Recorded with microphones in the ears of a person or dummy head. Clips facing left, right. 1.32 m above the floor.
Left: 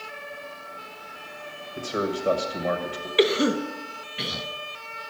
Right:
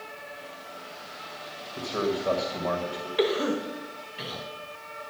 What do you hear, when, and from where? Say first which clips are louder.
1.8 s a man speaking: even; 20° left (ahead or behind), 1.6 m
3.2 s a cough: left 4 dB; 30° left (ahead or behind), 1.1 m